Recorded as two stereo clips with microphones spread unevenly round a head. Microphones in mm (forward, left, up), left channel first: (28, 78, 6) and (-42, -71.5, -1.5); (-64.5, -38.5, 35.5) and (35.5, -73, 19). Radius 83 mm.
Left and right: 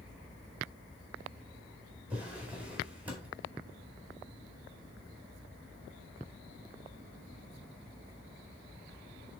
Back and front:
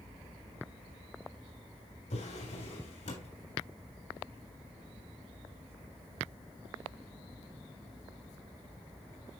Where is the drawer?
160° left, 4 m.